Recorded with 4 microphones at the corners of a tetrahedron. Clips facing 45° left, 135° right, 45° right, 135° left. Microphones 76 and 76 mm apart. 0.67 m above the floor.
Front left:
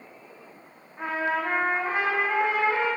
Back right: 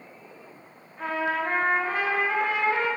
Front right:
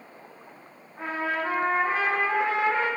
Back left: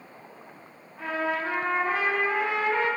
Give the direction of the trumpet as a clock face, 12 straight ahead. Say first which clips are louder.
Even, even; 12 o'clock.